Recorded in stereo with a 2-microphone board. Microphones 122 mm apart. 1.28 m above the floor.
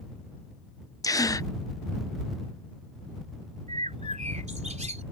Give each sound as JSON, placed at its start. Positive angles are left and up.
{"t": 1.0, "sound": "a gasp", "side_deg": 30}
{"t": 3.7, "sound": "a bird", "side_deg": -70}